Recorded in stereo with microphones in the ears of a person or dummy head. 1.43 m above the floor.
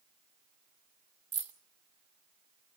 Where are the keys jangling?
15° right (ahead or behind), 2.5 m.